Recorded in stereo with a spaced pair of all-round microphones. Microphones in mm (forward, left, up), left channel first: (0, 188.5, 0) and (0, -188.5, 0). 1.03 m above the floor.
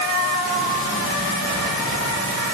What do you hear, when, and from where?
Only background noise.